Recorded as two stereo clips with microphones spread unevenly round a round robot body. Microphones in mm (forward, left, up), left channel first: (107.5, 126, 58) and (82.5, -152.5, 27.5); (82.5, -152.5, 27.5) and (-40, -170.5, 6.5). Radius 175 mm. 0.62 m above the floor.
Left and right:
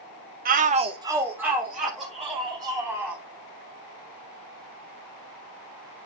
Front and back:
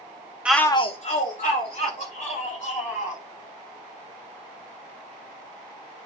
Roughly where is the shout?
Right.